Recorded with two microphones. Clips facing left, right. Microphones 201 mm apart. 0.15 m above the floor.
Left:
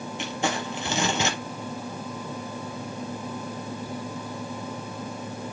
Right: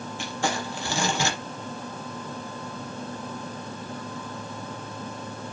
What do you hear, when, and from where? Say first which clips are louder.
0.2 s crumpling: left 1 dB; 20° left (ahead or behind), 3.5 m